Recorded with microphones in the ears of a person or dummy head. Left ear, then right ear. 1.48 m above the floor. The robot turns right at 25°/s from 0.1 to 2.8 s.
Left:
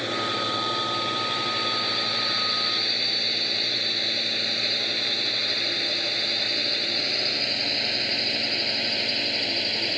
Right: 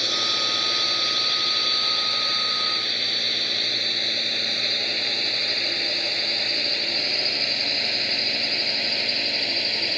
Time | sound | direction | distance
0.0 | a drone | 75° right (ahead or behind) | ?